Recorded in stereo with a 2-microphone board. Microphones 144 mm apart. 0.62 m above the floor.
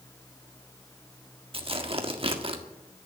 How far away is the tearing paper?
About 1.5 m.